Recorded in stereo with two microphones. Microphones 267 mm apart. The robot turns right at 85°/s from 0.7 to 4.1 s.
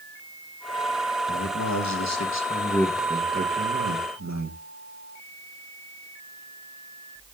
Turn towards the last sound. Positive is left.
turn(degrees=-80)